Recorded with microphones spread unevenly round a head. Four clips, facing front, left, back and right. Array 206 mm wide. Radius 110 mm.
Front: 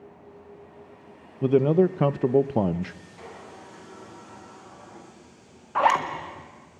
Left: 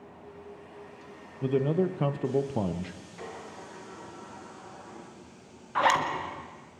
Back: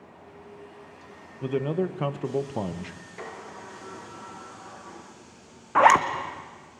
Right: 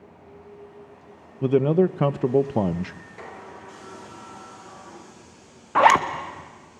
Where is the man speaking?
45° right, 0.6 m.